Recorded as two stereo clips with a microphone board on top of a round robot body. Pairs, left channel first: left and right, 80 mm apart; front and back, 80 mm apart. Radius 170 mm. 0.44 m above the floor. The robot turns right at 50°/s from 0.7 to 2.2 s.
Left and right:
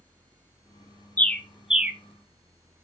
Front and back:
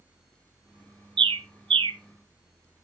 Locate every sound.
1.2 s a bird: 160° left, 0.6 m; by 2.0 s 160° right, 0.6 m